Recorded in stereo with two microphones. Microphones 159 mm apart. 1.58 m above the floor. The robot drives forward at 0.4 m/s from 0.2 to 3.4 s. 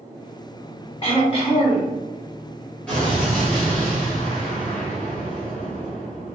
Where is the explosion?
10° left (ahead or behind), 1.2 m; by 6.4 s 5° left (ahead or behind), 1.4 m.